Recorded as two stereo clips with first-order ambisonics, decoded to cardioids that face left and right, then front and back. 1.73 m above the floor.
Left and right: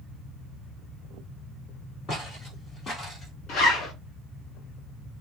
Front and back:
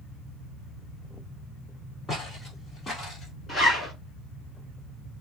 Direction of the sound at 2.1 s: 70° left.